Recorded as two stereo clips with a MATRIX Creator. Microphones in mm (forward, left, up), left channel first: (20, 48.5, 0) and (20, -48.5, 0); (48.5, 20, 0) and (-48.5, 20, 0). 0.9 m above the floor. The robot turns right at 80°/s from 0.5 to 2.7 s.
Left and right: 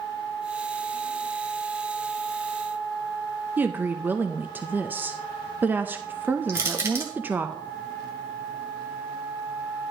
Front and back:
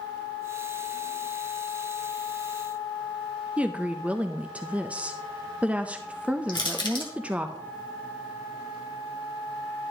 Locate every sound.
3.6 s a woman speaking: 125° right, 0.5 m
6.5 s crushing: 30° right, 2.5 m